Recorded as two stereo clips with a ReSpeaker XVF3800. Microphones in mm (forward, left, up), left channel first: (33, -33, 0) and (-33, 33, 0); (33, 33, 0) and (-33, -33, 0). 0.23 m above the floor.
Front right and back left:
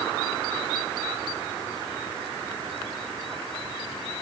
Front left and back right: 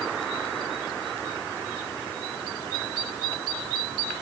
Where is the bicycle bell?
No bicycle bell in this recording.